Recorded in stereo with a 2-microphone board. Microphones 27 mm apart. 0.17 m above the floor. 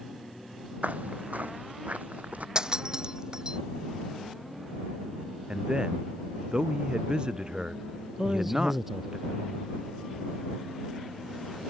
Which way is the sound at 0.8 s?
70° right (ahead or behind).